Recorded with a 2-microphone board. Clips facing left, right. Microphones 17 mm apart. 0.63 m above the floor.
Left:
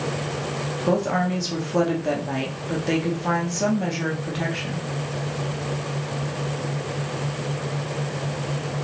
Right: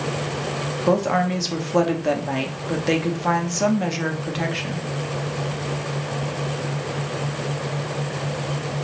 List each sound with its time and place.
0.9 s a woman speaking: 20° right (ahead or behind), 0.8 m